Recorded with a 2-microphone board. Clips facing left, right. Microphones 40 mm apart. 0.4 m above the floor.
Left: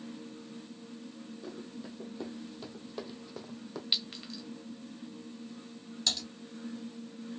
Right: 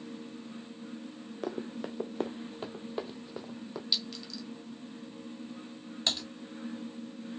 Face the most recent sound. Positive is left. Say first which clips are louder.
# right 1 dB
turn(degrees=-30)  # may be behind; listen again after turning